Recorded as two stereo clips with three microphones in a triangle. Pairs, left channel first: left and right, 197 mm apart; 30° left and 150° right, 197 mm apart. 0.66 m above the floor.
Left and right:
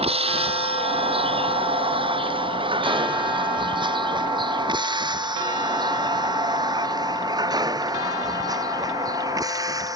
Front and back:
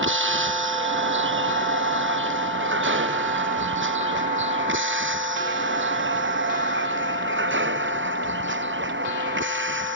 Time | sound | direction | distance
0.0 | a vehicle | 150° right | ?